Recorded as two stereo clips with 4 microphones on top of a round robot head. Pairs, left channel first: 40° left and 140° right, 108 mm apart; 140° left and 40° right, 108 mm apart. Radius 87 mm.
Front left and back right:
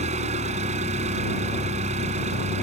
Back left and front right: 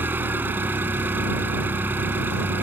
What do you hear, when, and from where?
0.0 s an engine running: 115° right